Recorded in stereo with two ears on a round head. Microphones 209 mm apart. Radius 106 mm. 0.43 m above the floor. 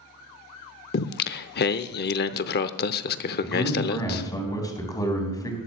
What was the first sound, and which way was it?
Singing, 45° left (ahead or behind).